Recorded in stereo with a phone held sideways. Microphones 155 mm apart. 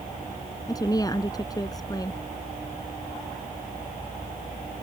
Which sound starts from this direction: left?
A woman speaking, at 0.7 s.